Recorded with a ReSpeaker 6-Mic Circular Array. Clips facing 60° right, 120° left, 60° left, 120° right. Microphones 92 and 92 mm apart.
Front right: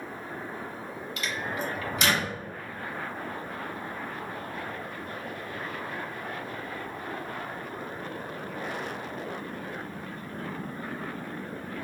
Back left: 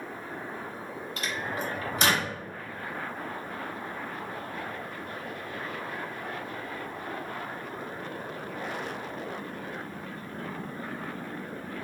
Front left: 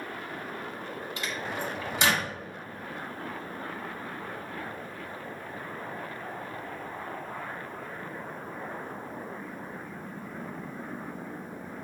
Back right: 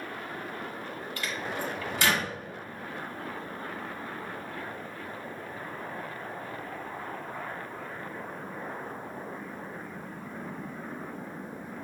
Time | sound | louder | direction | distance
1.2 | a microwave | even, back right 1 dB | 115° left | 1.0 m